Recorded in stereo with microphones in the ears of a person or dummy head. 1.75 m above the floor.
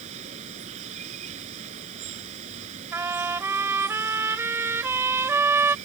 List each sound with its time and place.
0.0 s running water: 40° right (ahead or behind)
2.9 s a trumpet: 15° right (ahead or behind)